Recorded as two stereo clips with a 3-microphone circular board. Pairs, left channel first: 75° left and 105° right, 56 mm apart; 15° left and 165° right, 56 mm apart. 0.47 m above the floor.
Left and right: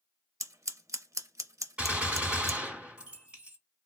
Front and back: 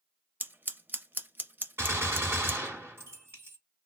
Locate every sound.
0.4 s scissors: 115° right, 0.5 m
1.8 s a gunshot: 165° right, 2 m